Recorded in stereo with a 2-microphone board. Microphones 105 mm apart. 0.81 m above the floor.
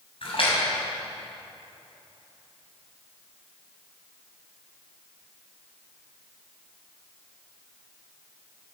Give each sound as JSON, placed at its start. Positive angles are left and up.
{"t": 0.2, "sound": "a splash", "side_deg": 65, "distance_m": 5.0}